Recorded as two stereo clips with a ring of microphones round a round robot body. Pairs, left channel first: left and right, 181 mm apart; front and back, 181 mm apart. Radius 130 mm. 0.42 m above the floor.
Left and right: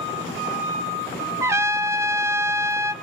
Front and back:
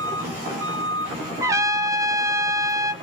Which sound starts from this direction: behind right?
A trumpet, at 1.4 s.